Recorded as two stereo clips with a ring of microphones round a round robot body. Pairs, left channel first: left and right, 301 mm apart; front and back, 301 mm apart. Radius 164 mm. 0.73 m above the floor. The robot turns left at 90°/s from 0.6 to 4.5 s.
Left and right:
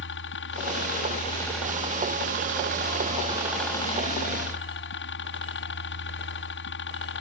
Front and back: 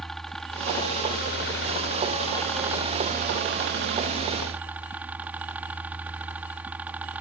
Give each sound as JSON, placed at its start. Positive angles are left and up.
{"t": 0.0, "sound": "a helicopter", "azimuth_deg": 90}